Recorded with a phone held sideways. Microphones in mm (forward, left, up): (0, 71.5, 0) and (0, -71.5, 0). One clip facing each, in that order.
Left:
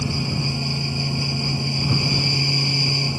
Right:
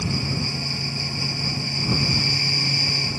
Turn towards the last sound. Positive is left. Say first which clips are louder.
# left 2 dB
turn(degrees=15)  # may be behind; listen again after turning